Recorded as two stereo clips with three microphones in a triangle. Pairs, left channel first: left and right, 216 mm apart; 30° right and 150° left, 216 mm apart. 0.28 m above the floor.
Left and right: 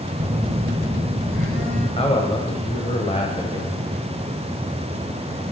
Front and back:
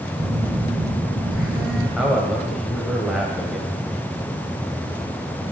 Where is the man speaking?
65° left, 1.2 m.